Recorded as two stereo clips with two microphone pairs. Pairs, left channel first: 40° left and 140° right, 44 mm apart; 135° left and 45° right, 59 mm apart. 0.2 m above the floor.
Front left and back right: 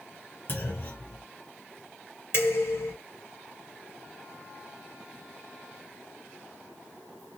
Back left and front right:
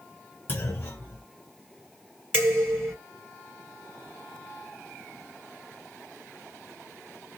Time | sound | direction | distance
0.5 | a clunk | 80° left | 1.6 m
2.3 | dishes clattering | 55° left | 1.5 m